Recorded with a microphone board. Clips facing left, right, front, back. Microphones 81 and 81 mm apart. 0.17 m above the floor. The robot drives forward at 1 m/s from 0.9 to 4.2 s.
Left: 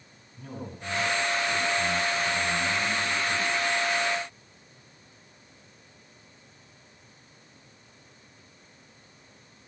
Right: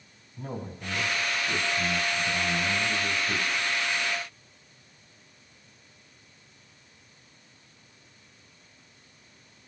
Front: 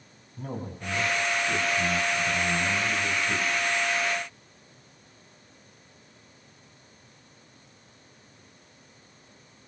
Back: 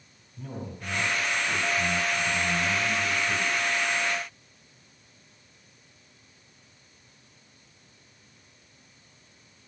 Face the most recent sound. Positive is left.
turn(degrees=-70)